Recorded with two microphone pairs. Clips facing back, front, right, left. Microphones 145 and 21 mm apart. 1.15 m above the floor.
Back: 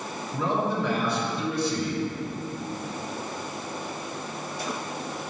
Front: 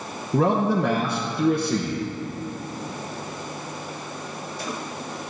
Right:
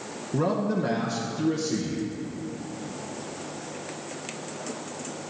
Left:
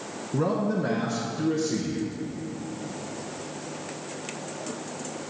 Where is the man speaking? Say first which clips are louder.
Front 6 dB, even; 15° right, 0.9 m.